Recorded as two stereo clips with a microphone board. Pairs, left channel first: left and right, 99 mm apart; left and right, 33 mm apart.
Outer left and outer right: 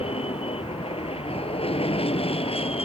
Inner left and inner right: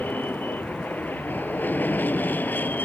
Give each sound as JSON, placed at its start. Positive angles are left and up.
{"t": 0.0, "sound": "an aircraft", "side_deg": 75}